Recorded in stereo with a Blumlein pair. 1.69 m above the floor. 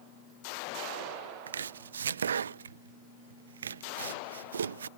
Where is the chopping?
70° right.